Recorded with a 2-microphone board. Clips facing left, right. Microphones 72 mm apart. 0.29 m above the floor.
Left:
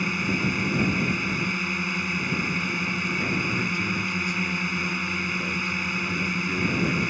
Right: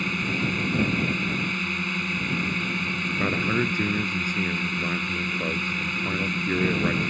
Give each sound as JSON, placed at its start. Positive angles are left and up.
{"t": 0.0, "sound": "a drone", "side_deg": 10}
{"t": 3.2, "sound": "a man speaking", "side_deg": -40}